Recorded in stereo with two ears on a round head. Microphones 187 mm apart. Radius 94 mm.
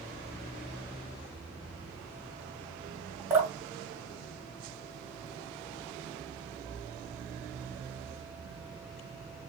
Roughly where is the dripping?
Centre.